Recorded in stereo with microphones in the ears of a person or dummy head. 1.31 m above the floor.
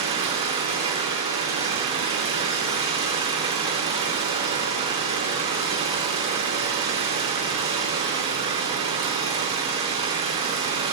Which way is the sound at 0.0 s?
35° right (ahead or behind).